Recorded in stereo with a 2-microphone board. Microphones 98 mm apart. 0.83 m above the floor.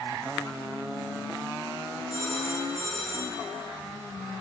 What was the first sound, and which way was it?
A phone ringing, 60° left (ahead or behind).